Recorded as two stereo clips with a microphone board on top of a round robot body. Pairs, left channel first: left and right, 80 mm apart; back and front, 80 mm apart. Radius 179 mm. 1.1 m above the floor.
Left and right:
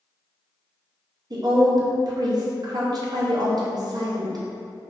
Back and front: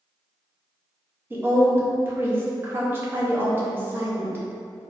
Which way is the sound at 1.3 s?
60° right.